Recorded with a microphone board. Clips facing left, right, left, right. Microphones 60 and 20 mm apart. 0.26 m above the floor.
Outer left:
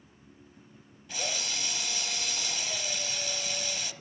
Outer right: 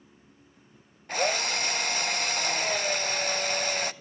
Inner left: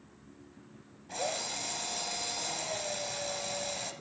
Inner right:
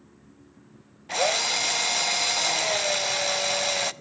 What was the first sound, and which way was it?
A drill, 50° right (ahead or behind).